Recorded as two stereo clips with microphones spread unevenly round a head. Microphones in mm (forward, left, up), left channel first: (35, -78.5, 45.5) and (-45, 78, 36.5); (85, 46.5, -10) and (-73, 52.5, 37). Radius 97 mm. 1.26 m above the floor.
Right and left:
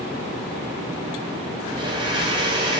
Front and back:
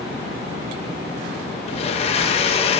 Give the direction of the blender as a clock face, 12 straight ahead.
10 o'clock.